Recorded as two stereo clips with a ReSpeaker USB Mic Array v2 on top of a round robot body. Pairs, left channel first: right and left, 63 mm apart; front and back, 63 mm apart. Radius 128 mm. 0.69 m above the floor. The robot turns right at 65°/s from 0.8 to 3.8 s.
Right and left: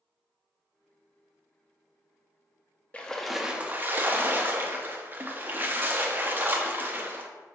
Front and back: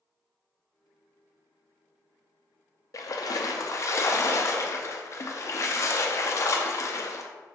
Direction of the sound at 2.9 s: 20° right.